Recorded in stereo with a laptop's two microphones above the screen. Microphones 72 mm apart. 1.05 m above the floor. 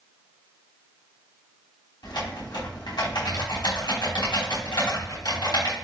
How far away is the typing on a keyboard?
About 4 m.